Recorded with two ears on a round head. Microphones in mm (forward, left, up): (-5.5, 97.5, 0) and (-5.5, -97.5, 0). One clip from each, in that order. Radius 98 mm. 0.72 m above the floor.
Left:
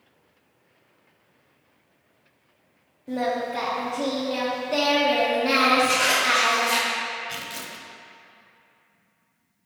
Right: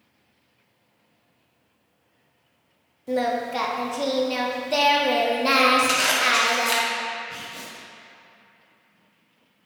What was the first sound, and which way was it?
Singing, 40° right (ahead or behind).